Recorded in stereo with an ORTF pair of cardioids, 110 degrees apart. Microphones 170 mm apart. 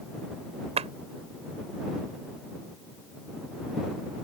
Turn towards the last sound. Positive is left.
turn(degrees=-40)